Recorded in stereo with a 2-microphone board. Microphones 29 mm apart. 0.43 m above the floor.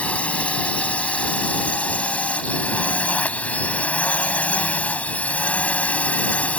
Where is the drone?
60° left (ahead or behind).